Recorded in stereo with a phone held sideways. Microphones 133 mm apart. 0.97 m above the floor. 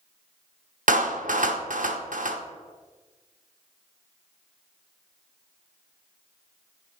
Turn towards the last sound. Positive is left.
turn(degrees=-80)